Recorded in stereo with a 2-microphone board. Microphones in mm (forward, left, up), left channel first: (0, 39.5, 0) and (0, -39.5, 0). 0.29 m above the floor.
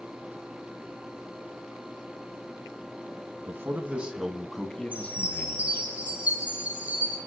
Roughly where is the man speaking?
Right.